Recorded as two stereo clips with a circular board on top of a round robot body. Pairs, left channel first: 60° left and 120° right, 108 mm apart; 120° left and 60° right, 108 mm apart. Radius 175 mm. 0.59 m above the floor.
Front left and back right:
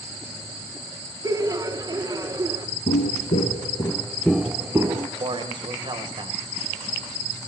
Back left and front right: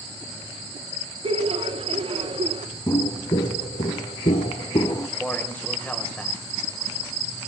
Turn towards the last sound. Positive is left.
turn(degrees=-165)